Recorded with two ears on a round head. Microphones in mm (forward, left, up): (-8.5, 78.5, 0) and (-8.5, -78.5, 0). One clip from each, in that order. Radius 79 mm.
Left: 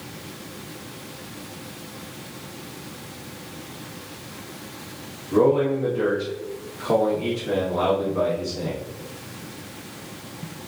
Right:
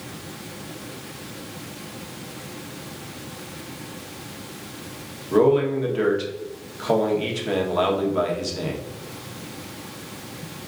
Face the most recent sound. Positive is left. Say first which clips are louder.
# right 1 dB
turn(degrees=-65)  # may be behind; listen again after turning